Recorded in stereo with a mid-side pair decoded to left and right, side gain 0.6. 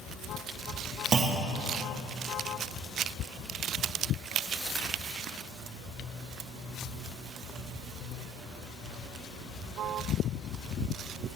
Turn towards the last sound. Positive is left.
turn(degrees=-40)